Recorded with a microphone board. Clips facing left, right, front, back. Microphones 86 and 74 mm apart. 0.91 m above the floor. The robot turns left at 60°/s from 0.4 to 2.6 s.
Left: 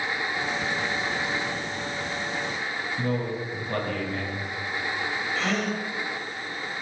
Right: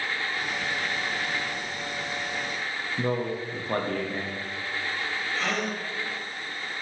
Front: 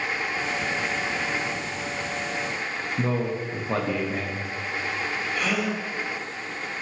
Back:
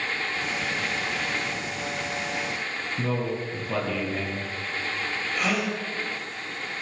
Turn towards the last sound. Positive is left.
turn(degrees=-175)